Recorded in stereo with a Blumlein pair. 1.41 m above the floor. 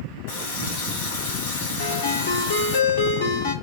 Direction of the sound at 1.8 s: 60° left.